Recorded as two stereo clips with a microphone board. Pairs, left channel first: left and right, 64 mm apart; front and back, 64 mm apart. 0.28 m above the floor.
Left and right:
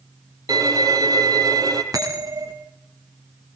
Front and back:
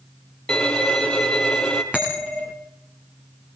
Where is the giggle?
I don't hear a giggle.